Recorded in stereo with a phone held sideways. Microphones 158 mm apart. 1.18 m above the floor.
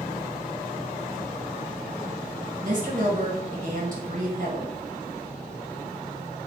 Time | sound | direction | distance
2.6 | a woman speaking | 55° right (ahead or behind) | 1.0 m